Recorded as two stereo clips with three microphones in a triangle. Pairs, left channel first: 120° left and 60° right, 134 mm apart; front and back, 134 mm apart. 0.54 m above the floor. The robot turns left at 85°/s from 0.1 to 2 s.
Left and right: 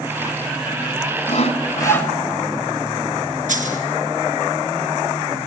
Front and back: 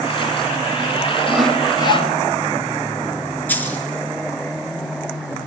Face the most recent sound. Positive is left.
turn(degrees=-75)